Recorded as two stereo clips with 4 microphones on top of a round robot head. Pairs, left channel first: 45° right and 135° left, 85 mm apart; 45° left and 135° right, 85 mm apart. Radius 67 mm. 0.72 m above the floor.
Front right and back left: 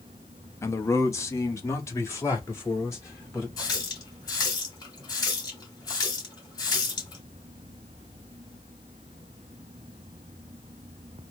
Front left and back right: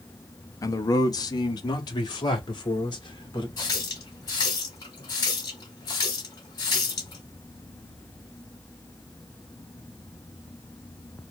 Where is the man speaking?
5° left, 0.7 m; by 3.5 s 10° left, 2.5 m.